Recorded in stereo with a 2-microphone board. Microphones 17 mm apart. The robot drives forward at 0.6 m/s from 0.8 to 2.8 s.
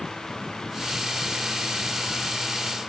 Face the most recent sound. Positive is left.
No sound to turn to.